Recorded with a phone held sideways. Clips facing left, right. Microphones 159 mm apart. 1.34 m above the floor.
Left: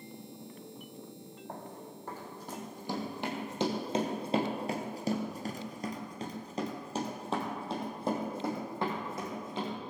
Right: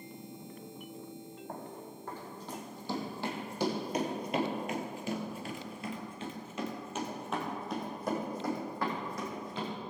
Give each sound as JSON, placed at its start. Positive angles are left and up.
{"t": 1.5, "sound": "running footsteps", "side_deg": 10, "distance_m": 4.0}